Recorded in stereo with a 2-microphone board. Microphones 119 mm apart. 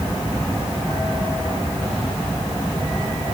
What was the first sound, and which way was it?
Only background noise.